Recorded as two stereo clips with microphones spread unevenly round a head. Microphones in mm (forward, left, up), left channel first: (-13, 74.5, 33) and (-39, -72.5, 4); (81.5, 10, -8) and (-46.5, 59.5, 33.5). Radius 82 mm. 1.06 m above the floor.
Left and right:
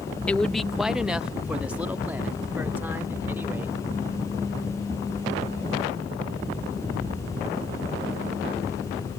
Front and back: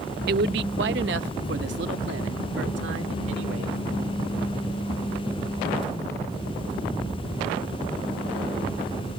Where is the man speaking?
170° left; by 3.8 s straight behind.